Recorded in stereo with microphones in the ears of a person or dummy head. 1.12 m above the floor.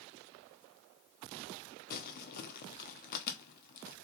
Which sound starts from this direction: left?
Crumpling, at 1.9 s.